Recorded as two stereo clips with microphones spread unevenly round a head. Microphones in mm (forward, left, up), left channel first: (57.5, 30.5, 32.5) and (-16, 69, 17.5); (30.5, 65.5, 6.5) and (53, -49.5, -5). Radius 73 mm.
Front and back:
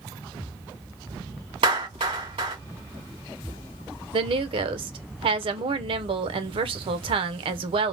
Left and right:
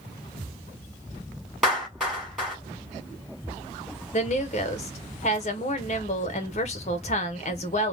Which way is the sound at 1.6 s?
170° right.